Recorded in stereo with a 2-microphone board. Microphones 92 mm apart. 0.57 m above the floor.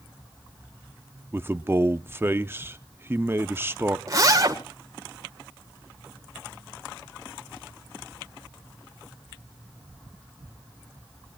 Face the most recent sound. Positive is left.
turn(degrees=-35)  # may be behind; listen again after turning